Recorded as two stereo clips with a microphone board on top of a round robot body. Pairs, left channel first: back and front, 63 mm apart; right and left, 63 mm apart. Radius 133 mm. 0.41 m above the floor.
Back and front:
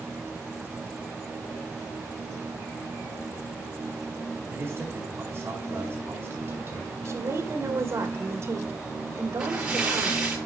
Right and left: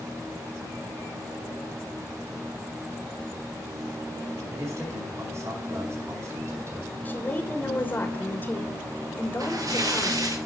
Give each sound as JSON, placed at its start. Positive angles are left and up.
{"t": 4.5, "sound": "a man speaking", "azimuth_deg": 50, "distance_m": 5.0}
{"t": 7.0, "sound": "a woman speaking", "azimuth_deg": -30, "distance_m": 3.0}
{"t": 9.4, "sound": "a splash", "azimuth_deg": 80, "distance_m": 6.0}